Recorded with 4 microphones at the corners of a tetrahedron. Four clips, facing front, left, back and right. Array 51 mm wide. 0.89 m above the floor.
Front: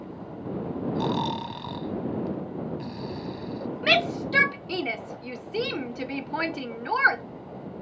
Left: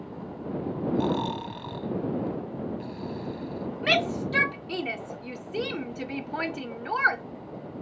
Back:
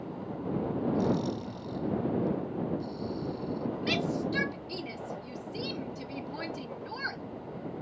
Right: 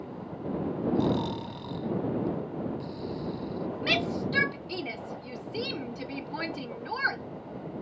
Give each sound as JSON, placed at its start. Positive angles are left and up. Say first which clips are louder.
{"t": 0.9, "sound": "snoring", "louder": "left 2 dB, front 5 dB", "azimuth_deg": 25}
{"t": 3.8, "sound": "a shout", "louder": "left 4 dB, front 9 dB", "azimuth_deg": 25}